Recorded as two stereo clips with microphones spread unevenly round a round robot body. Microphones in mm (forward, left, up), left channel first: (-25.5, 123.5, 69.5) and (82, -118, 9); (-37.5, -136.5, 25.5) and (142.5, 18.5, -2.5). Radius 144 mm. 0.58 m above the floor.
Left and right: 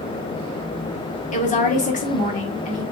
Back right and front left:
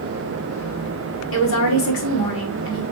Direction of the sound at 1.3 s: Straight behind.